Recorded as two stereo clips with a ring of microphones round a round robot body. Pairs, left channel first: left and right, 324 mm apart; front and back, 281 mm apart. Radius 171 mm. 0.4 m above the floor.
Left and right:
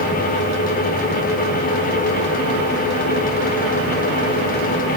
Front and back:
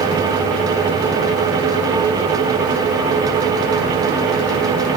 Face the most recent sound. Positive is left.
No sound to turn to.